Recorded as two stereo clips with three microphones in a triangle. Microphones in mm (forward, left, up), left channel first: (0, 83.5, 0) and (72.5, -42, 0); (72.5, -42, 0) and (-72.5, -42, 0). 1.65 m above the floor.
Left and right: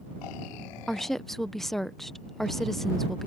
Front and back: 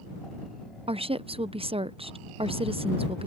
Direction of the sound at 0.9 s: 155° right.